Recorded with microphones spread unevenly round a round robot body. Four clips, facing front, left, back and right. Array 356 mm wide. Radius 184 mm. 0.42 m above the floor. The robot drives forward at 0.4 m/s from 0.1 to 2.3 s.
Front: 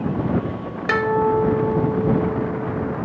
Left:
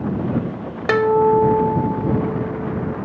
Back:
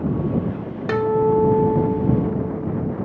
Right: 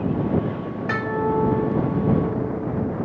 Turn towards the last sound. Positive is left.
turn(degrees=145)